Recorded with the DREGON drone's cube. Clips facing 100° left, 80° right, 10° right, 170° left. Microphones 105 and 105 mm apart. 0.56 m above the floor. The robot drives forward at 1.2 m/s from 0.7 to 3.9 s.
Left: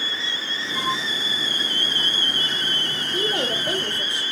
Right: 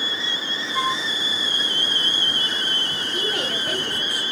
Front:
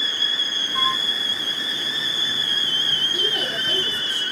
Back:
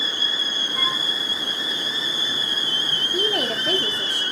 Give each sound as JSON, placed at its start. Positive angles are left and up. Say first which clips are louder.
{"t": 0.7, "sound": "a flute", "louder": "right 2 dB, front 5 dB", "azimuth_deg": -20, "distance_m": 4.0}
{"t": 3.1, "sound": "a woman speaking", "louder": "left 3 dB, back 5 dB", "azimuth_deg": 150, "distance_m": 1.5}